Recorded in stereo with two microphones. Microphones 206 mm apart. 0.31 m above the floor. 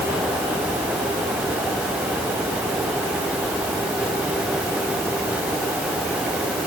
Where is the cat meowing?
No cat meowing in this recording.